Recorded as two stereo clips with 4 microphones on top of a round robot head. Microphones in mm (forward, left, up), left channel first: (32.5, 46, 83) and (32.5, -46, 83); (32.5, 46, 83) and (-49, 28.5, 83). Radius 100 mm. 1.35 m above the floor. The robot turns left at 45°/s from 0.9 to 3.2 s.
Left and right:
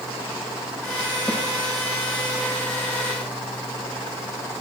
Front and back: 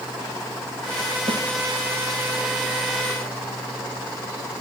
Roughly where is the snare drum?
Behind.